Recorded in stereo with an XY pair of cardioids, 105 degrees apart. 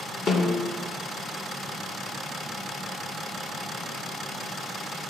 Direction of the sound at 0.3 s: 60° left.